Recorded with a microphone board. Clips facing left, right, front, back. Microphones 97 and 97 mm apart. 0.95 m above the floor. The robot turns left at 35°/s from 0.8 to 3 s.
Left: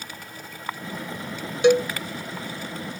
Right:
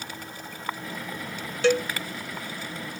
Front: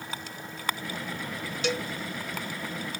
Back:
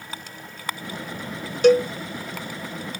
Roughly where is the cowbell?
Behind.